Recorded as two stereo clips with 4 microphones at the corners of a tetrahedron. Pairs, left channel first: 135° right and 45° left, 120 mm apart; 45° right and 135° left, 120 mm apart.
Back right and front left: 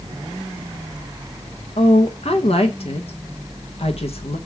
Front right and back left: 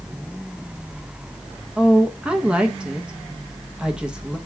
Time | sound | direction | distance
1.8 | a woman speaking | 145° right | 1.1 m